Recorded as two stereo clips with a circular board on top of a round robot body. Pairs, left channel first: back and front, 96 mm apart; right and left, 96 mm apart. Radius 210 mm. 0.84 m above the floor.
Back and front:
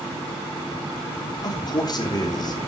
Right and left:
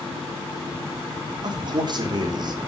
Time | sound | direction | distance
1.4 | a man speaking | 135° left | 3 m